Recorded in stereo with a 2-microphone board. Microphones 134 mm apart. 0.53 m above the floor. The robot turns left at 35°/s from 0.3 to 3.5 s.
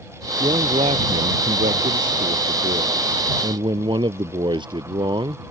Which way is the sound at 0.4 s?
35° right.